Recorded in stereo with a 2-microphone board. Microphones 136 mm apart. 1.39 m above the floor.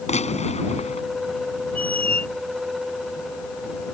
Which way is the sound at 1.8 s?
10° left (ahead or behind).